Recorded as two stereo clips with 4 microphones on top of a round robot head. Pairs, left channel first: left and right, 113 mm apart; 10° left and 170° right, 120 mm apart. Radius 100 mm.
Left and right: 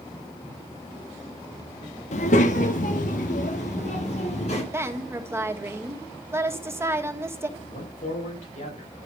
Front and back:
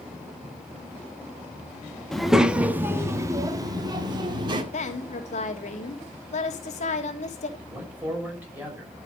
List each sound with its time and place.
2.1 s a child speaking: 95° left, 0.8 m; by 4.6 s 140° left, 1.8 m
4.7 s a woman speaking: 20° right, 1.8 m
7.6 s a man speaking: 115° left, 6 m